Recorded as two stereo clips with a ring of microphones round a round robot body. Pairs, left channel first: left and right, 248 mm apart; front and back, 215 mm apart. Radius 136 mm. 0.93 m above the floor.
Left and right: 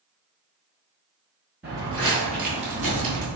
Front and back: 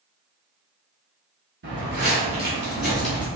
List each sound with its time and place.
1.6 s footsteps: 170° right, 1.2 m; by 3.3 s 80° right, 1.4 m